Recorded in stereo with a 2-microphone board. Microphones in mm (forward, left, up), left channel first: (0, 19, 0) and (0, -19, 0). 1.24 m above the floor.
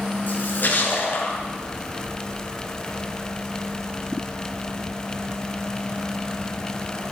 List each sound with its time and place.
0.3 s a splash: 60° left (ahead or behind), 4.5 m